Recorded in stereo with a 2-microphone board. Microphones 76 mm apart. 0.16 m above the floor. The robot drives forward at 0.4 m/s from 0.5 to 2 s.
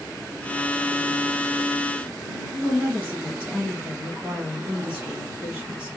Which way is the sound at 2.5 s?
20° right (ahead or behind).